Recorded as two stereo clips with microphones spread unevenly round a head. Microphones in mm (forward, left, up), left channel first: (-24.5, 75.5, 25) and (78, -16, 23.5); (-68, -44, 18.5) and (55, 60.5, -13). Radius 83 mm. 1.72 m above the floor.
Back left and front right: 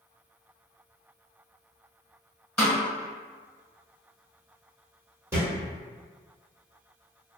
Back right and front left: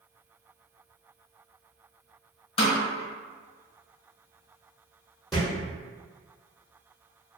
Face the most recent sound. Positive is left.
turn(degrees=-75)